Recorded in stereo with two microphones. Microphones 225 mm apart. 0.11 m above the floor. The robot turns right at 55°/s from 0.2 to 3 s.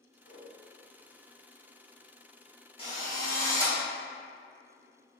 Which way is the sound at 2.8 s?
25° left (ahead or behind).